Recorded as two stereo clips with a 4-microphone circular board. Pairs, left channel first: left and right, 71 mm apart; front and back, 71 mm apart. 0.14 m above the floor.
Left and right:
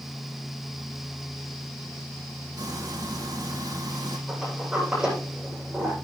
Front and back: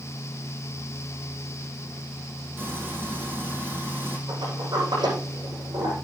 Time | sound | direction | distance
2.6 | frying | 120° right | 4.5 m
4.3 | a sliding door | 170° right | 8 m